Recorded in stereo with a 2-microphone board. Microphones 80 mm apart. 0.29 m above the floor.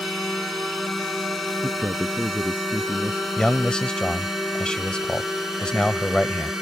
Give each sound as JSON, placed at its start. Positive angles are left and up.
{"t": 0.0, "sound": "a drone", "side_deg": 0}
{"t": 1.6, "sound": "a man speaking", "side_deg": -20}
{"t": 3.4, "sound": "a man speaking", "side_deg": 10}